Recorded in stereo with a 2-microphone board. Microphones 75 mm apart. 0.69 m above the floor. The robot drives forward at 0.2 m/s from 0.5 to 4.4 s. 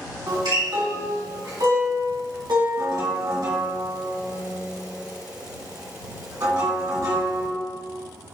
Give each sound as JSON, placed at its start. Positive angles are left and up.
{"t": 0.3, "sound": "a guitar", "side_deg": -75, "distance_m": 1.4}